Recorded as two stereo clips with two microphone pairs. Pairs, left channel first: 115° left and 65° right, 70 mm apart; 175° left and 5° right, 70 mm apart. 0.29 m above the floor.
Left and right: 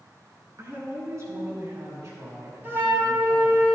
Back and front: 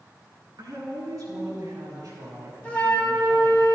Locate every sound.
0.6 s a woman speaking: 30° right, 3.5 m; by 3.6 s 45° right, 6 m
2.6 s a flute: 115° right, 1.6 m